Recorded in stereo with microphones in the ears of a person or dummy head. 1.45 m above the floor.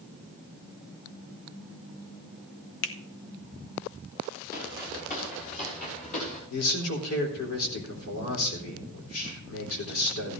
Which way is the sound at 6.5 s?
80° left.